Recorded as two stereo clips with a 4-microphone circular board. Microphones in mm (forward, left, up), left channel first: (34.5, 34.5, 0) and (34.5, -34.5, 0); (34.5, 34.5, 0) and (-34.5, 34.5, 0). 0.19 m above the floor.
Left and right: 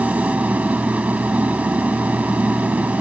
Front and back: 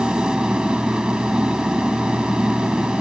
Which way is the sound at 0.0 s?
120° right.